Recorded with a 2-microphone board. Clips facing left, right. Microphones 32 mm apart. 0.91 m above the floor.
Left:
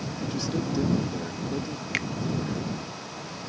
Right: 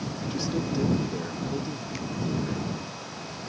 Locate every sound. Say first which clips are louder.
0.3 s a man speaking: even; 5° right (ahead or behind)
1.9 s a finger snap: left 10 dB; 80° left